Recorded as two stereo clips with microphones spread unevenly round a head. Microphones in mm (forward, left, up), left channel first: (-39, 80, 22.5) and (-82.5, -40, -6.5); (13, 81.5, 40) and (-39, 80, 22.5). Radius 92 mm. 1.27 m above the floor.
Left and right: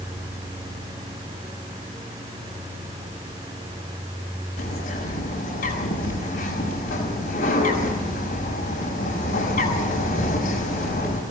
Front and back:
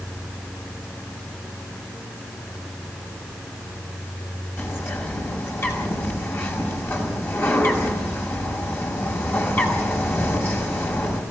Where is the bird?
40° left, 6 m.